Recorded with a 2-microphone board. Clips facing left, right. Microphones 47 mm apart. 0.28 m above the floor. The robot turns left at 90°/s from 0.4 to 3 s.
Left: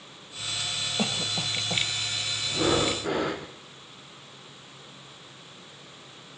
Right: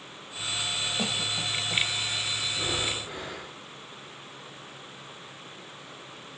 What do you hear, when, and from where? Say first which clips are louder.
1.0 s a cough: left 1 dB; 10° left (ahead or behind), 1.2 m; by 1.9 s 25° left (ahead or behind), 1.2 m
2.5 s breathing: left 10 dB; 125° left, 3 m; by 3.5 s 75° left, 3 m